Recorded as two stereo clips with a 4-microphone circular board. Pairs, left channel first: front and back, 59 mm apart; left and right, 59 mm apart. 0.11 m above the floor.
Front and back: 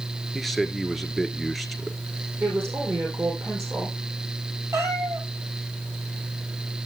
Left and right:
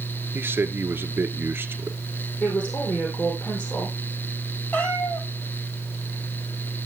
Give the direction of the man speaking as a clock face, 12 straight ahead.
3 o'clock.